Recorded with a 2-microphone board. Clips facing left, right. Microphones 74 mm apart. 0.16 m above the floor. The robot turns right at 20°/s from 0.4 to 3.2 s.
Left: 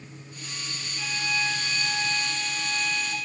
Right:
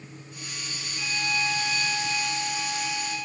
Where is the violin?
5° right, 7.5 m; by 3.1 s 40° left, 7.5 m.